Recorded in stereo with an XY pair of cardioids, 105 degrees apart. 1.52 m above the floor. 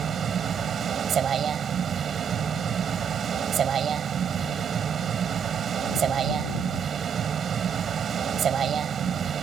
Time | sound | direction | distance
0.0 | a vehicle | 55° right | ?